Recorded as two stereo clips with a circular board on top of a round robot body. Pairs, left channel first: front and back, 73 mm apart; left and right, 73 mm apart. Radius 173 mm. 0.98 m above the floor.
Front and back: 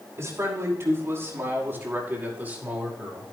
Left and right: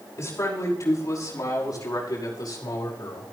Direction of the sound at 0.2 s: 135° left.